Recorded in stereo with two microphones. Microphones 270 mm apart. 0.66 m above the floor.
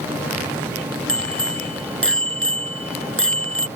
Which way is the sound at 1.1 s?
50° right (ahead or behind).